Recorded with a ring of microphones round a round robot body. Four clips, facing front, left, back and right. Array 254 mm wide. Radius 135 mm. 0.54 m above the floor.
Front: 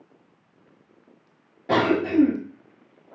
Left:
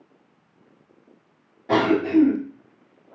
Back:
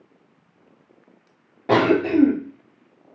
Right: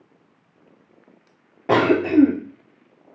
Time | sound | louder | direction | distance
1.7 | a cough | right 2 dB, back 3 dB | 125° right | 1.3 m